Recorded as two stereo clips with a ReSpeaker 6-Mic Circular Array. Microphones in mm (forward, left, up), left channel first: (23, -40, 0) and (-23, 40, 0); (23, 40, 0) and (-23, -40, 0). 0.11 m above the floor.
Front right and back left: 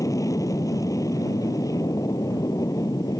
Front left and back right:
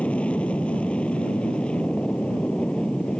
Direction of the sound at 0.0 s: 15° right.